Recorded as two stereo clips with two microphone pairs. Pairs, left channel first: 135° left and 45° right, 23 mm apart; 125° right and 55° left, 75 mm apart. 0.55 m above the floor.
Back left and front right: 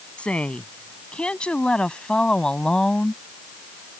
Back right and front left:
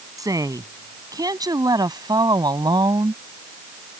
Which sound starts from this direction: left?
A woman speaking, at 0.2 s.